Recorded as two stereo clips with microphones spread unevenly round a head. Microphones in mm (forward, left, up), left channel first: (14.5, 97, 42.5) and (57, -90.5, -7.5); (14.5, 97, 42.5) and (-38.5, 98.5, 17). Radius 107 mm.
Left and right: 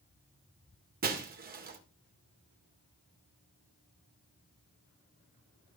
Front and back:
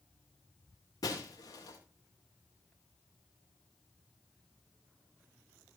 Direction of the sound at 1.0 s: 35° right.